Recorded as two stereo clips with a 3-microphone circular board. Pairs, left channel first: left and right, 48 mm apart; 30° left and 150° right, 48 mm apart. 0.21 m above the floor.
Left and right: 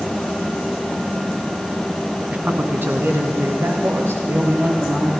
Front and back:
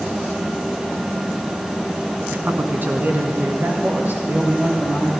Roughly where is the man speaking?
Behind right.